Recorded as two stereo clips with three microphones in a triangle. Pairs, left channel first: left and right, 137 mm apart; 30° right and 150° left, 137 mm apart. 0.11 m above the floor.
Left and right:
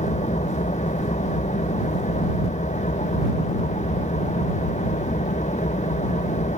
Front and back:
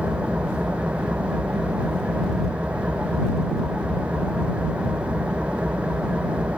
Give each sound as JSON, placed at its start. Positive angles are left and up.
{"t": 0.0, "sound": "an engine running", "azimuth_deg": 70}